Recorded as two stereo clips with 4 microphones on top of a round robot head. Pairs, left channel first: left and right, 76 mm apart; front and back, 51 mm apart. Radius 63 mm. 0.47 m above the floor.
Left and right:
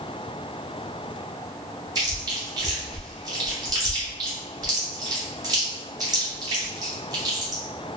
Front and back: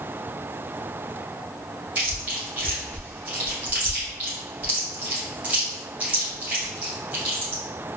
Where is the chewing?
120° right, 1.6 m.